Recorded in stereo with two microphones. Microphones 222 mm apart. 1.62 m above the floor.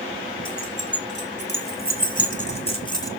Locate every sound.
0.5 s keys jangling: 55° left (ahead or behind), 3 m; by 3.1 s 15° left (ahead or behind), 1.4 m